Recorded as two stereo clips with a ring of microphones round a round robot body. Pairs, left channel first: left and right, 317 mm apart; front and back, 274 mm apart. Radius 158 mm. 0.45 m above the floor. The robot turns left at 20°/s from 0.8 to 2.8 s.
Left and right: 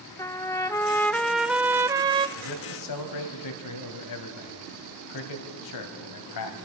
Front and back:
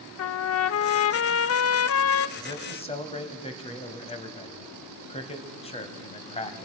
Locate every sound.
0.2 s a trumpet: 10° left, 0.5 m; by 2.3 s 20° right, 0.5 m
2.4 s a man speaking: 75° left, 2.5 m; by 6.7 s 70° left, 2.5 m